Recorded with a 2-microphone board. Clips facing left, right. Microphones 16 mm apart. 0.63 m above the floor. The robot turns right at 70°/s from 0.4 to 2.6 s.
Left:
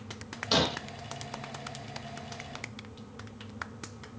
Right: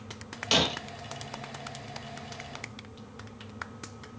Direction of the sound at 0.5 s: 65° right (ahead or behind).